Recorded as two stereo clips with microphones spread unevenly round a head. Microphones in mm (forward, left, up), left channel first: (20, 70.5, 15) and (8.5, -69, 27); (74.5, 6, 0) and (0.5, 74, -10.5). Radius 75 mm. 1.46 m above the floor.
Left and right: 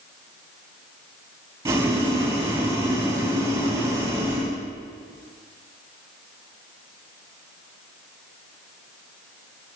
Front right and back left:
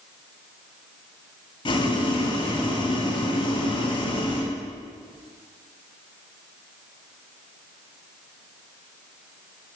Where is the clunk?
No clunk in this recording.